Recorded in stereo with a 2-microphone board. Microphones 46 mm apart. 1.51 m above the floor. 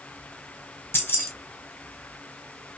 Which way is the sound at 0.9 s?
55° left (ahead or behind).